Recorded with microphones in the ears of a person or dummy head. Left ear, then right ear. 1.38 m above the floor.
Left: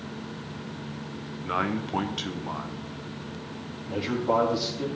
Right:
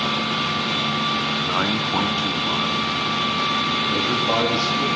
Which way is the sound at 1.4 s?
5° right (ahead or behind).